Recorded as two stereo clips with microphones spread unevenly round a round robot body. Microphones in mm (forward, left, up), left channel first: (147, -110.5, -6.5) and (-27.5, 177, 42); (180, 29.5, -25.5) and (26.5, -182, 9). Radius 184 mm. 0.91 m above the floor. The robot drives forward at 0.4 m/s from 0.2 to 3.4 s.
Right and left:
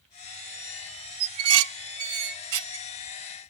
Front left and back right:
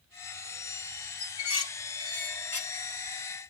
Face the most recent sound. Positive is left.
turn(degrees=155)